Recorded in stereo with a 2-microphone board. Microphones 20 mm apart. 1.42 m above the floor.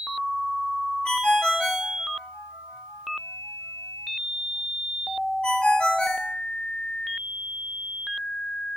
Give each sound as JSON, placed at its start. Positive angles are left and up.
{"t": 1.1, "sound": "a ringtone", "side_deg": 55, "distance_m": 1.4}